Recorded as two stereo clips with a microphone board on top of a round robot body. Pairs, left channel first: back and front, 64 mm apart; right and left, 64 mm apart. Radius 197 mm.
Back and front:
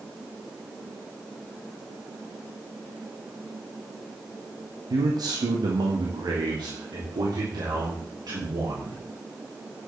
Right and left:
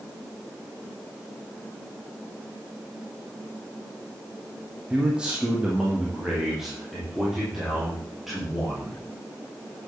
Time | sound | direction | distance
4.9 | a man speaking | 15° left | 1.6 m